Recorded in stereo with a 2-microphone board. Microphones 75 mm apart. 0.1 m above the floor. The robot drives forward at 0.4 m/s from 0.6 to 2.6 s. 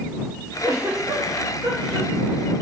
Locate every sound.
0.6 s a giggle: 50° right (ahead or behind), 4 m; by 2.6 s 60° right (ahead or behind), 3.5 m